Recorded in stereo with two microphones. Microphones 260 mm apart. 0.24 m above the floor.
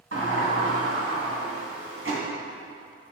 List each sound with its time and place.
0.1 s a sliding door: 50° right (ahead or behind), 2 m